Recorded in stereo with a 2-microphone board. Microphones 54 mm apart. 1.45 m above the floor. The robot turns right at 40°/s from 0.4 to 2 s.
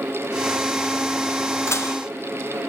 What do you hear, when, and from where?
1.7 s dishes clattering: 60° left (ahead or behind), 1.8 m; by 2.0 s 70° left (ahead or behind), 1.8 m